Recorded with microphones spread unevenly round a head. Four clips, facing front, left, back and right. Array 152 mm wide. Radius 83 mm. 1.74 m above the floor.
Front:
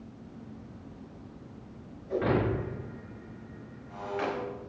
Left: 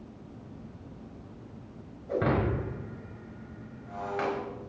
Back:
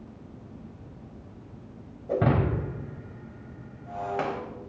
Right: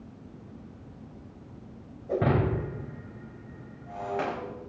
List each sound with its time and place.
2.1 s breaking glass: 155° right, 4.5 m